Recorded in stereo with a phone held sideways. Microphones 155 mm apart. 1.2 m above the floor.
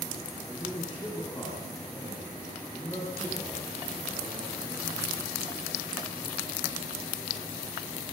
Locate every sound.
0.5 s a man speaking: 35° left (ahead or behind), 8 m